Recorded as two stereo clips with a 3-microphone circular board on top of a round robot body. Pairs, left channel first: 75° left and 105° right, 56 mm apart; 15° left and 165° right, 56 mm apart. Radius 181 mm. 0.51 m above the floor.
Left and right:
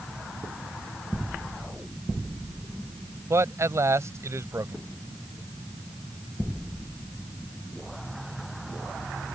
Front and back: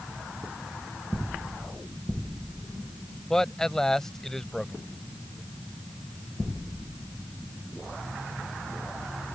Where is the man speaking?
65° right.